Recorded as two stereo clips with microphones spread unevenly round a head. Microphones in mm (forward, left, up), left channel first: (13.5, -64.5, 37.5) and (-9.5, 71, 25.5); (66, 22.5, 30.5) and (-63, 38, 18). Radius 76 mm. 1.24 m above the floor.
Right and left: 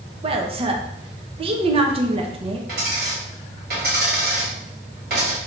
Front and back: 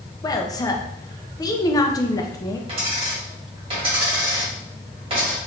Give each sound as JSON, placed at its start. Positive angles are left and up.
{"t": 0.2, "sound": "a woman speaking", "azimuth_deg": 55, "distance_m": 0.7}
{"t": 2.7, "sound": "a dropped coin", "azimuth_deg": 125, "distance_m": 2.0}